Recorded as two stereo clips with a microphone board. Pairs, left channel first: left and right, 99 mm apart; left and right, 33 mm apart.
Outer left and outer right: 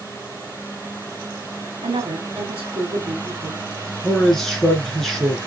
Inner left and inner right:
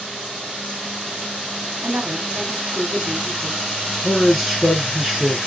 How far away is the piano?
No piano in this recording.